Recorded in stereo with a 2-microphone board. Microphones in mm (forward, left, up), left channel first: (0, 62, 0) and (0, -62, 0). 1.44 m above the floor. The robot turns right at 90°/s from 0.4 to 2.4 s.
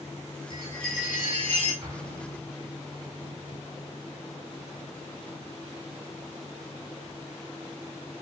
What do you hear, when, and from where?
0.5 s a chime: 150° left, 5.5 m; by 1.7 s 100° right, 5.5 m
1.8 s an explosion: 55° right (ahead or behind), 2.5 m; by 2.8 s 5° right (ahead or behind), 2.5 m